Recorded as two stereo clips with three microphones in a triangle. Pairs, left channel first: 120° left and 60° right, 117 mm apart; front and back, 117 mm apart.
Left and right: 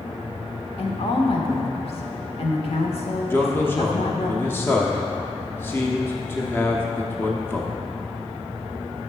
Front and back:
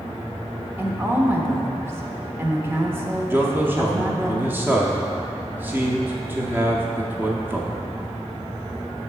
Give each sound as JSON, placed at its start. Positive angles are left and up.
{"t": 0.8, "sound": "a woman speaking", "azimuth_deg": 115, "distance_m": 1.1}
{"t": 3.3, "sound": "a man speaking", "azimuth_deg": 145, "distance_m": 0.8}